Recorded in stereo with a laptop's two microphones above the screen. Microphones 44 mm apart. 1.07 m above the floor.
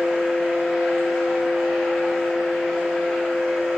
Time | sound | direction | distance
0.0 | a fan | 5° left (ahead or behind) | 1.0 m